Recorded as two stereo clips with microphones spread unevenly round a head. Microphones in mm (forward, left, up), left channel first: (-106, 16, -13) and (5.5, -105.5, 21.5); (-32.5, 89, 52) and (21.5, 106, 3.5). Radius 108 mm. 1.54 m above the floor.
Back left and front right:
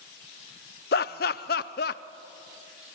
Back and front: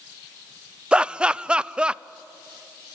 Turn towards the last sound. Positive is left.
turn(degrees=85)